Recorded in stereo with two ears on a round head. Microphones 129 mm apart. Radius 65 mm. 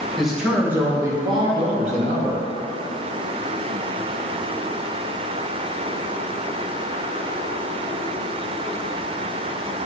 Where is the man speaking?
Centre (ahead or behind), 1.6 m; by 2.4 s 65° right (ahead or behind), 1.5 m.